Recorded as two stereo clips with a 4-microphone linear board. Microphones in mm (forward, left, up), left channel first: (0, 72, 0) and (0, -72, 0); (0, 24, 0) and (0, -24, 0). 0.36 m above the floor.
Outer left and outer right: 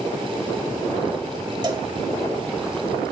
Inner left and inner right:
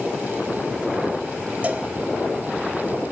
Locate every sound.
1.6 s a cowbell: 30° right (ahead or behind), 1.1 m